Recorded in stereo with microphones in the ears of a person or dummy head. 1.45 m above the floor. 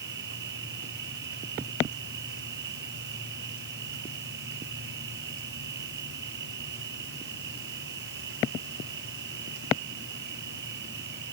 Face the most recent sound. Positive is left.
turn(degrees=-60)  # may be behind; listen again after turning